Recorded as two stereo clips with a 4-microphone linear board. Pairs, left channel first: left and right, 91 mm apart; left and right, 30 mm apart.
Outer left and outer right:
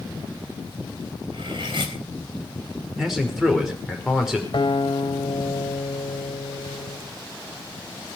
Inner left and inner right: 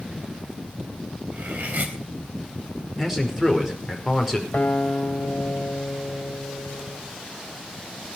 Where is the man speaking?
5° right (ahead or behind), 5 m.